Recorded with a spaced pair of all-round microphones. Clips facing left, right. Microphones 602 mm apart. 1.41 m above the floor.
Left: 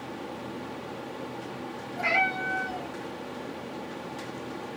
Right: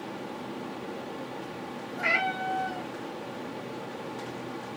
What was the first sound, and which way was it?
A cat meowing, 25° right (ahead or behind).